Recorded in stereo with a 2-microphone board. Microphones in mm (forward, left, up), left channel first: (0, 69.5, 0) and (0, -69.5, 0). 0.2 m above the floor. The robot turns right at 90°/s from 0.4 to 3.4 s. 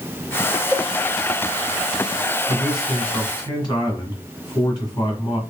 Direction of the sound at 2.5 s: 30° right.